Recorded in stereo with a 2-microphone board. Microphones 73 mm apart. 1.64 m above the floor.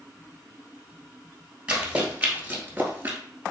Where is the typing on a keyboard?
I don't hear typing on a keyboard.